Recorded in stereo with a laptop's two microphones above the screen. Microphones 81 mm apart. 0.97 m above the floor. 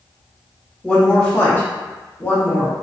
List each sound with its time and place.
0.8 s a woman speaking: 5° left (ahead or behind), 0.7 m; by 2.7 s 25° left (ahead or behind), 0.9 m